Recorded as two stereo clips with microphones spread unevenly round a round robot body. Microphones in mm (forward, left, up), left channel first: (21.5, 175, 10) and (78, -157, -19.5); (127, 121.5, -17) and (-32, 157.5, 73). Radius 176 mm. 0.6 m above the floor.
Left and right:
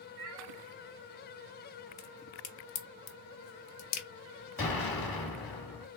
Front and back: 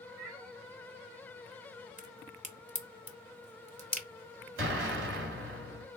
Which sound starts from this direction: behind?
An explosion, at 4.6 s.